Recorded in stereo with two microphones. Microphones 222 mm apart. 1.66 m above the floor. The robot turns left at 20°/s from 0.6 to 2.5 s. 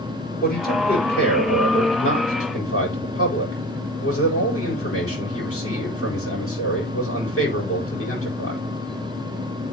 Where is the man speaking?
135° left, 8 m; by 8.6 s 95° left, 8 m.